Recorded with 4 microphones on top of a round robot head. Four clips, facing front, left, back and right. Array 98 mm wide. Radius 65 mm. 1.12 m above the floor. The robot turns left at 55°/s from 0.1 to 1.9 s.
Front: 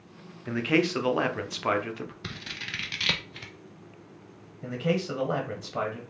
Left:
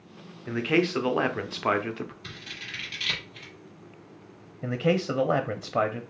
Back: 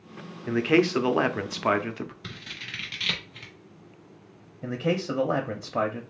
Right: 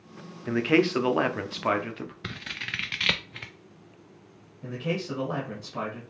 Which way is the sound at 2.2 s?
65° right.